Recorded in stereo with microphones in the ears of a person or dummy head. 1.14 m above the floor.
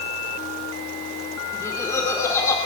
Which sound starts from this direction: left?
Laughter, at 1.5 s.